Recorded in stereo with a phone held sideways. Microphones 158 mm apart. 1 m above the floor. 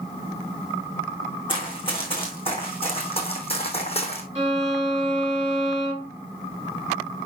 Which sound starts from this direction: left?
Running footsteps, at 1.5 s.